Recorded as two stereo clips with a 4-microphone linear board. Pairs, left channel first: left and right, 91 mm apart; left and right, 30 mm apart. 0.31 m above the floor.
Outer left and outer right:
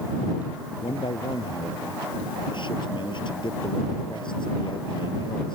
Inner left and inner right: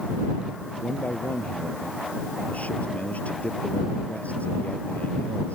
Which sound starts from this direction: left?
A man speaking, at 0.8 s.